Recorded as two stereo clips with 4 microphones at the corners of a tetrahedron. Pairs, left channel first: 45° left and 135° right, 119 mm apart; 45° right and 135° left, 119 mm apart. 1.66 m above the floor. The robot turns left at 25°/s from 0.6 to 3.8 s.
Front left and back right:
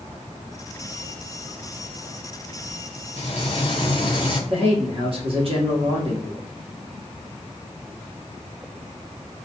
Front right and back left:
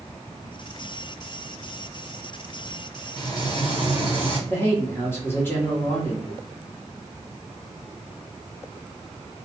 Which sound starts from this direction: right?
A man speaking, at 4.5 s.